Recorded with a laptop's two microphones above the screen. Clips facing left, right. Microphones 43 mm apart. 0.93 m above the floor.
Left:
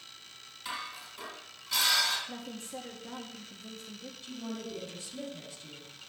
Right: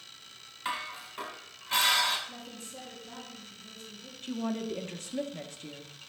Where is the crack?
I don't hear a crack.